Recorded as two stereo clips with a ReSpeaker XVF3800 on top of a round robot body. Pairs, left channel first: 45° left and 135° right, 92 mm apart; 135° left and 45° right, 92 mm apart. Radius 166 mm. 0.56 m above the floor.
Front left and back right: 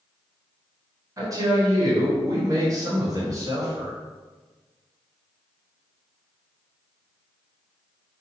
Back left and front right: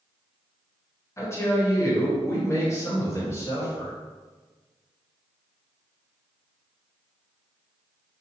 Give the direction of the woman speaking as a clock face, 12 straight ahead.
6 o'clock.